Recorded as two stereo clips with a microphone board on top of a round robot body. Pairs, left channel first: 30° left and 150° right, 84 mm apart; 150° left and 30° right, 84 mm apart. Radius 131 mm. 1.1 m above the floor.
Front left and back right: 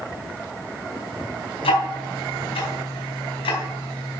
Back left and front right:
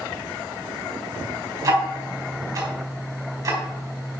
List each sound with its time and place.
1.6 s ticking: 20° left, 3.5 m